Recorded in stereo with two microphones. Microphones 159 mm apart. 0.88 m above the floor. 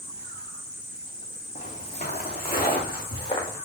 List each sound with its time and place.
1.6 s footsteps: 45° left (ahead or behind), 2.5 m; by 3.6 s 20° left (ahead or behind), 4 m